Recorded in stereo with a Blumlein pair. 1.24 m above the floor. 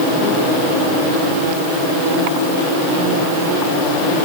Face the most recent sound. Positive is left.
No sound to turn to.